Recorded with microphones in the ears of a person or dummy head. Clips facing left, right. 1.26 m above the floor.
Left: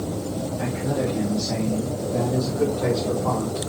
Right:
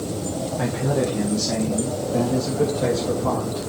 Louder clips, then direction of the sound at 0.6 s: Right 3 dB; 65° right (ahead or behind).